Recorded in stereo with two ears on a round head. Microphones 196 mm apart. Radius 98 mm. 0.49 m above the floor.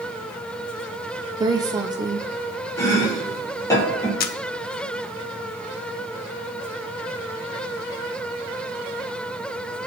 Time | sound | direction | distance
1.4 | a woman speaking | 15° right (ahead or behind) | 0.7 m
2.8 | chopping | 15° left (ahead or behind) | 4 m
4.2 | a camera shutter | 45° left (ahead or behind) | 0.6 m